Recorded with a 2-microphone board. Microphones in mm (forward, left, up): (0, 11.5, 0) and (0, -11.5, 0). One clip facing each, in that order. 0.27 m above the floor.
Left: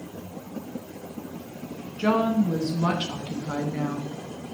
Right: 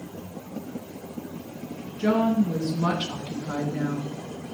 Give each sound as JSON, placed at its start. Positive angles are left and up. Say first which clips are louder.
{"t": 2.0, "sound": "a woman speaking", "louder": "even", "side_deg": 60, "distance_m": 3.5}